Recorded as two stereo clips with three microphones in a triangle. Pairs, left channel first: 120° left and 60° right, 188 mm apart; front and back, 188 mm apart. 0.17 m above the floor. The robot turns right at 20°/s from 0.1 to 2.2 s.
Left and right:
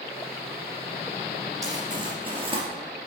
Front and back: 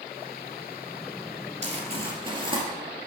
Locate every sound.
1.6 s crumpling: 130° right, 2.5 m; by 2.6 s 120° right, 2.5 m